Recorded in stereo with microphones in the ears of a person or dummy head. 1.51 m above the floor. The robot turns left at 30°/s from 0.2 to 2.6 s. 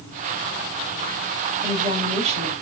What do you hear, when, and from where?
1.6 s a woman speaking: 15° right (ahead or behind), 3.5 m; by 2.5 s 40° right (ahead or behind), 3.5 m